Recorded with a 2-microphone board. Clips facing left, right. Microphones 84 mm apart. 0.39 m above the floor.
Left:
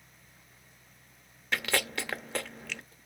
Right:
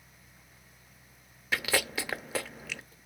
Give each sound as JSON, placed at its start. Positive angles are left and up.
{"t": 1.5, "sound": "chewing", "side_deg": 0, "distance_m": 0.6}